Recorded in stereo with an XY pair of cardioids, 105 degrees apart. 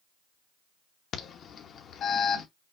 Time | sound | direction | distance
1.1 | an alarm | 60° left | 1.0 m